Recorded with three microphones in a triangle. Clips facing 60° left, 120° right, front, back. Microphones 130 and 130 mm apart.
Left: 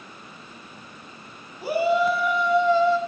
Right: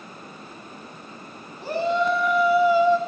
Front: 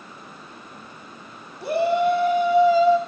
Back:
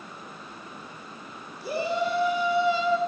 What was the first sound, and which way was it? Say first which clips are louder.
A shout: left 2 dB, front 7 dB; 20° right.